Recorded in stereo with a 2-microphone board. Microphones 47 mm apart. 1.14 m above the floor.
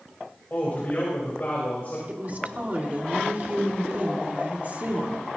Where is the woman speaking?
35° right (ahead or behind), 2 m.